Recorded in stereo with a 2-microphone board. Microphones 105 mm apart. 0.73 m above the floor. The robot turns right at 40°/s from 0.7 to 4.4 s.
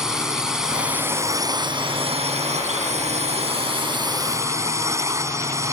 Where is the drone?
175° right; by 5.7 s 25° right.